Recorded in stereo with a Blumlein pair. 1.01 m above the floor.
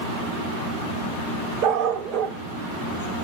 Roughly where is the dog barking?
Ahead right.